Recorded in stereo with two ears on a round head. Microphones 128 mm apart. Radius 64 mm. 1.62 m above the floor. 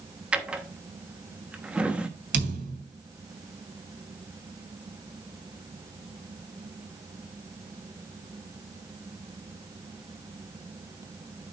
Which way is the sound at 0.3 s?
10° right (ahead or behind).